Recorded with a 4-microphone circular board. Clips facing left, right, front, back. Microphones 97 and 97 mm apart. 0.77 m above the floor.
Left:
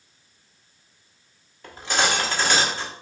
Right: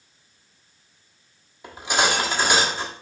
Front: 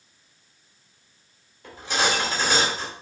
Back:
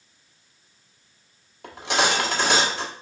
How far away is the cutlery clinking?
About 0.8 m.